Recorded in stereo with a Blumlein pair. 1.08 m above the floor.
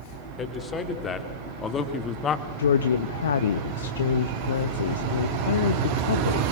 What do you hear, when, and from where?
0.4 s a man speaking: 20° left, 3.5 m; by 2.5 s 25° left, 1.5 m
2.6 s a woman speaking: 65° left, 1.0 m